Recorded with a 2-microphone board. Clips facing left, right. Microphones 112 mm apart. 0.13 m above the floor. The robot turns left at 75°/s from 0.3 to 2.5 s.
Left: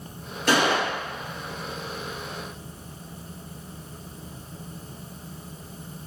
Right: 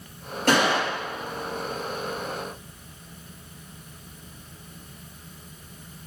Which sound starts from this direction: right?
A gunshot, at 0.5 s.